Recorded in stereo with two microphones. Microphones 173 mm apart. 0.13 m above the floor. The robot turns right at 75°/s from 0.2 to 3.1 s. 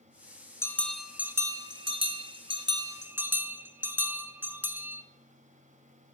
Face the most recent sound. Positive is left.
turn(degrees=-25)